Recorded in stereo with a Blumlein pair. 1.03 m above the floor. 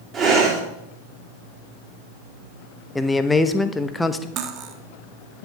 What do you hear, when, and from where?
0.1 s breathing: 20° right, 3 m
3.0 s a man speaking: 5° left, 0.8 m
4.4 s cutlery clinking: 30° right, 1.1 m